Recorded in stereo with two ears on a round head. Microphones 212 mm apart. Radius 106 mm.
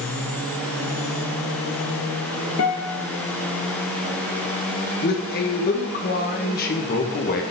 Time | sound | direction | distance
2.6 | a guitar | 65° left (ahead or behind) | 1.0 m
5.0 | a man speaking | 40° left (ahead or behind) | 1.1 m